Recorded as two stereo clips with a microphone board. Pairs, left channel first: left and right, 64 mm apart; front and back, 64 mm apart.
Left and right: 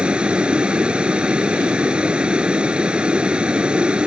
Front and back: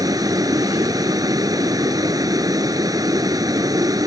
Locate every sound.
0.0 s a vehicle: 165° right